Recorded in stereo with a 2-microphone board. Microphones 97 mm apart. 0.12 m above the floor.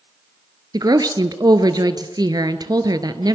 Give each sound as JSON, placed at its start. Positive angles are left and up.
{"t": 0.7, "sound": "a woman speaking", "side_deg": -50, "distance_m": 1.7}